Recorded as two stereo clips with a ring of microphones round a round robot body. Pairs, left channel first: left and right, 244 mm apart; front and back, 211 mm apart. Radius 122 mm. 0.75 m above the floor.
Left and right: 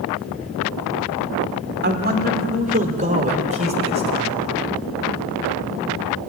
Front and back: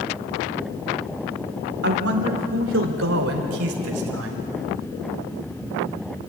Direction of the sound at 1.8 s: 135° right.